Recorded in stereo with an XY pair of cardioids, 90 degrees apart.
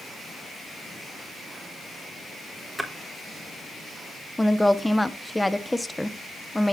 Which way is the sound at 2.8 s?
10° right.